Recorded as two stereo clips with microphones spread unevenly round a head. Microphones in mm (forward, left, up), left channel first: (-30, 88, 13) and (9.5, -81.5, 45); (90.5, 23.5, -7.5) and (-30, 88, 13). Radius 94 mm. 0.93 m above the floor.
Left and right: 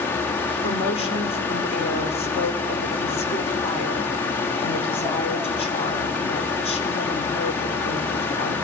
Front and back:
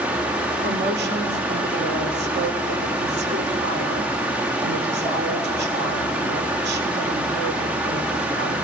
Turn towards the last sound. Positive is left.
turn(degrees=160)